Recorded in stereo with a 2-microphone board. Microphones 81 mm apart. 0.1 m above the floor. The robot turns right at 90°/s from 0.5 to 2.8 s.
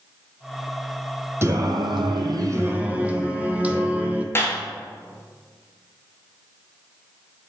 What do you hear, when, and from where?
1.4 s singing: 145° right, 0.7 m; by 4.2 s 20° right, 0.7 m
4.3 s a clap: 30° left (ahead or behind), 1.4 m